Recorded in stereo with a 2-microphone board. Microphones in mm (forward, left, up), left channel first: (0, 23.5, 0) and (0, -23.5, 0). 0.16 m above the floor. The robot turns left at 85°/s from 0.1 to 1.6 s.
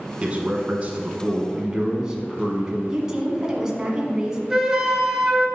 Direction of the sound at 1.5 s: 20° right (ahead or behind).